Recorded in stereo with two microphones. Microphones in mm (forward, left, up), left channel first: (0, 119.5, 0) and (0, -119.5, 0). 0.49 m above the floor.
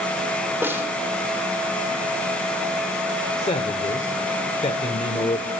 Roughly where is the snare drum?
Centre.